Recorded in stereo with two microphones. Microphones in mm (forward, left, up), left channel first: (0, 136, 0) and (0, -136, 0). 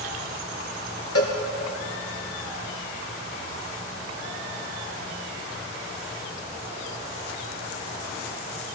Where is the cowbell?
60° left (ahead or behind), 2 m.